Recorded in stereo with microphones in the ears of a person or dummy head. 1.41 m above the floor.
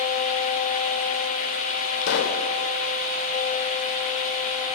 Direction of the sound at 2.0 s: 65° left (ahead or behind).